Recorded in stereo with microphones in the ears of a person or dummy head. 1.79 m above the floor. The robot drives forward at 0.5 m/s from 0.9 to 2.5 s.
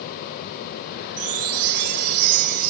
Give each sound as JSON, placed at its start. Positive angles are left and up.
{"t": 1.2, "sound": "a chime", "side_deg": -40}